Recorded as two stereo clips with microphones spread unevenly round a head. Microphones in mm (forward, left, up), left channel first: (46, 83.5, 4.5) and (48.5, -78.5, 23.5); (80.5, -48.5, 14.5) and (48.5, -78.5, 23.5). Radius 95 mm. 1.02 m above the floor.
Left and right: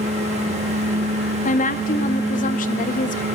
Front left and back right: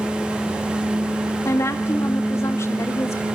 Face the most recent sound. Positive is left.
turn(degrees=55)